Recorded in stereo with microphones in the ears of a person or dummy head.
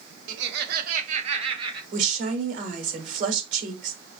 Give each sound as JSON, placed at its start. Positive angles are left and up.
{"t": 0.3, "sound": "laughter", "side_deg": -75, "distance_m": 0.6}
{"t": 1.9, "sound": "a woman speaking", "side_deg": -50, "distance_m": 1.5}